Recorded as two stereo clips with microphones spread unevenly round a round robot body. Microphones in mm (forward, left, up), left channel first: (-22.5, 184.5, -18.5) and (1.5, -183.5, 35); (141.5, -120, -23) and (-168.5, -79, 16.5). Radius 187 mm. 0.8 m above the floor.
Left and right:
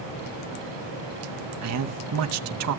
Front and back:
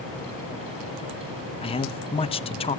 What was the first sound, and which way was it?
A man speaking, 60° right.